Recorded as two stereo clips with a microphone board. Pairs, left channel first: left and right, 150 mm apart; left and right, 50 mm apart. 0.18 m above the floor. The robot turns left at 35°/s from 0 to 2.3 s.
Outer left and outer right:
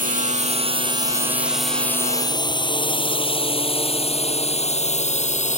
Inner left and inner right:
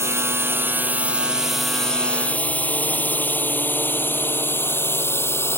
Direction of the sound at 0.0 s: 65° right (ahead or behind).